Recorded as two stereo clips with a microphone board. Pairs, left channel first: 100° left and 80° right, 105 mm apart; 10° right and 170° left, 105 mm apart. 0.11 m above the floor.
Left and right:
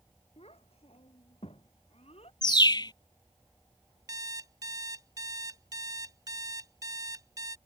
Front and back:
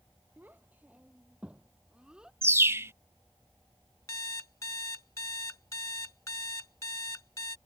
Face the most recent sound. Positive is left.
turn(degrees=-55)